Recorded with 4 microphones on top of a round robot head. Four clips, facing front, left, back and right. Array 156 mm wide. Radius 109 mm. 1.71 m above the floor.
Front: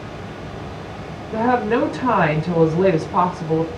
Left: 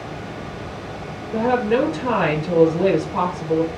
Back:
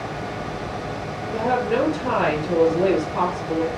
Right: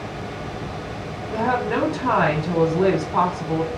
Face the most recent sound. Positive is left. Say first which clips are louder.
# left 3 dB, front 3 dB
turn(degrees=-25)